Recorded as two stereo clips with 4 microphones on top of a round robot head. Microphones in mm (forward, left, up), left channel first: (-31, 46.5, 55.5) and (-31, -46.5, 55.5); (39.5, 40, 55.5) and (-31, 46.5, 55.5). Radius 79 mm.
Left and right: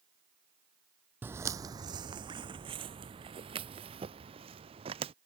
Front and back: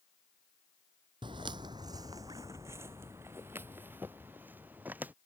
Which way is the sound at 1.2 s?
160° right.